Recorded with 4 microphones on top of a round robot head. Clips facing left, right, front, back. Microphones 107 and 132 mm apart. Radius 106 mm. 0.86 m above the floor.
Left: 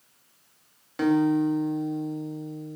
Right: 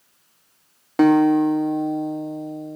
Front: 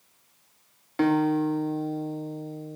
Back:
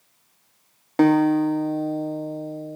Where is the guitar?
130° right, 1.7 m.